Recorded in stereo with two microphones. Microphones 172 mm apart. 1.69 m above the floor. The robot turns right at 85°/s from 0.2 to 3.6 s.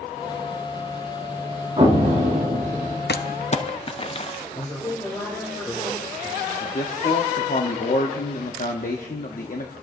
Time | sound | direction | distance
1.8 | an explosion | 135° right | 2 m
3.1 | crumpling | 75° left (ahead or behind) | 0.6 m
4.5 | a man speaking | 10° left (ahead or behind) | 3 m
6.6 | a man speaking | 55° left (ahead or behind) | 0.9 m